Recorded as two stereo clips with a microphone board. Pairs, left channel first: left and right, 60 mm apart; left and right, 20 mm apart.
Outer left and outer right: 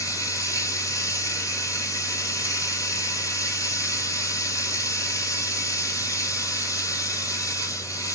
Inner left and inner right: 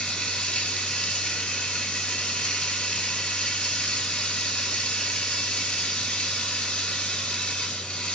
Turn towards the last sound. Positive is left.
turn(degrees=65)  # may be behind; listen again after turning